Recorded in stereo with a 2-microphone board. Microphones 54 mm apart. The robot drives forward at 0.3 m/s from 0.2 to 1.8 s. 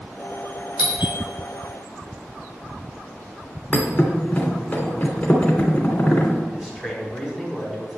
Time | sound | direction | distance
0.8 | a doorbell | 30° right (ahead or behind) | 3 m
3.7 | a thud | 20° left (ahead or behind) | 2.5 m
6.5 | a man speaking | 5° right (ahead or behind) | 4.5 m